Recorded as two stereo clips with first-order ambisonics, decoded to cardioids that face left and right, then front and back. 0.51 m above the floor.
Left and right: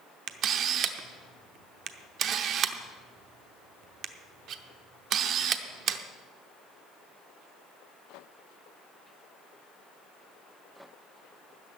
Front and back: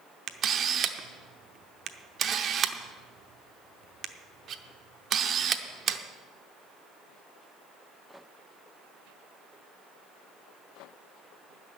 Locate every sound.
0.3 s a camera shutter: 130° right, 0.7 m